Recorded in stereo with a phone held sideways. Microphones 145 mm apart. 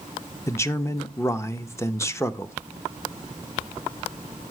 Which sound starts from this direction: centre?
A man speaking, at 0.5 s.